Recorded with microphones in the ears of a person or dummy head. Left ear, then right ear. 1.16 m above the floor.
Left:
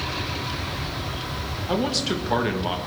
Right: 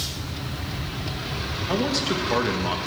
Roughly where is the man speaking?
Centre.